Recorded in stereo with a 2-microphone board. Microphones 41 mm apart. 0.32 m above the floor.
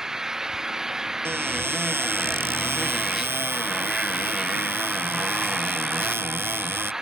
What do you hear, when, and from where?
0.0 s an engine running: 10° right (ahead or behind)
1.2 s a cupboard door: 80° right